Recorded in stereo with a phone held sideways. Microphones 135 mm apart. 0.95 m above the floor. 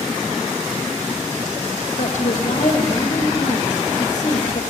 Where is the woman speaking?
60° left (ahead or behind), 1.8 m.